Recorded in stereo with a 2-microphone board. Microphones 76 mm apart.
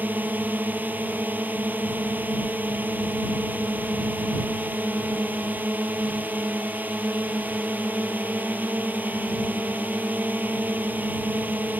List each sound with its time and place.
0.0 s a drone: 25° right (ahead or behind)